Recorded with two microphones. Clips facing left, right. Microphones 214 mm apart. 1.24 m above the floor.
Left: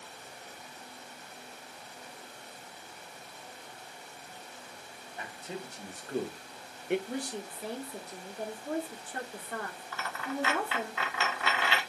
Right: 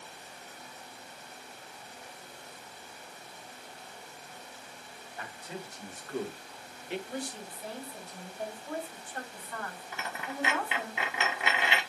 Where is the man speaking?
25° left (ahead or behind), 1.3 m; by 7.0 s 65° left (ahead or behind), 0.7 m.